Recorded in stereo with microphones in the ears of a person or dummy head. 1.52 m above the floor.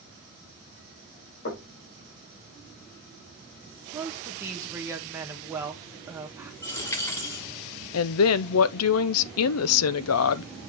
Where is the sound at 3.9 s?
15° right (ahead or behind), 1.7 m.